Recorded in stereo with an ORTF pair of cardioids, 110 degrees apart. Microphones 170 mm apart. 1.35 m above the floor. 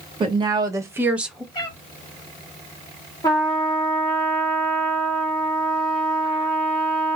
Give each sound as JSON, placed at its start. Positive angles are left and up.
{"t": 0.2, "sound": "a woman speaking", "azimuth_deg": -30, "distance_m": 1.3}
{"t": 1.5, "sound": "a cat meowing", "azimuth_deg": 25, "distance_m": 1.7}
{"t": 3.2, "sound": "a trumpet", "azimuth_deg": 25, "distance_m": 1.1}